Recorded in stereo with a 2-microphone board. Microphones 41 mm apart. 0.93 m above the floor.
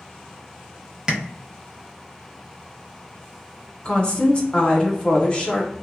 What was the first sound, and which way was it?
Tapping, 20° right (ahead or behind).